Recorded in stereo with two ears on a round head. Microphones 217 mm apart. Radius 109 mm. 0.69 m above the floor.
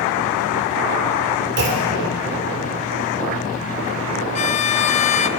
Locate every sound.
1.6 s a clunk: 45° right (ahead or behind), 2.5 m
4.3 s a violin: 30° left (ahead or behind), 0.5 m